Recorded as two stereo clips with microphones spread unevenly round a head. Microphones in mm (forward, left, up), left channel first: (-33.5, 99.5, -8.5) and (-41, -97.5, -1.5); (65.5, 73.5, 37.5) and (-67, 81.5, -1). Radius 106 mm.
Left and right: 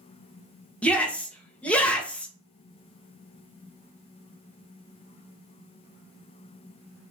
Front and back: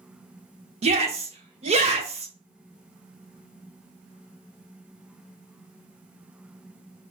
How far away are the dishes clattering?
I don't hear dishes clattering.